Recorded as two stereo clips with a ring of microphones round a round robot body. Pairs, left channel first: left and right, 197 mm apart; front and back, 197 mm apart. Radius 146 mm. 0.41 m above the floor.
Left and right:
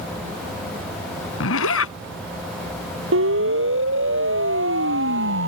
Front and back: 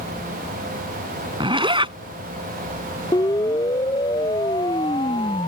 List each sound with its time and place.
1.4 s a zipper: 115° left
3.1 s a siren: 80° right; by 5.5 s 75° right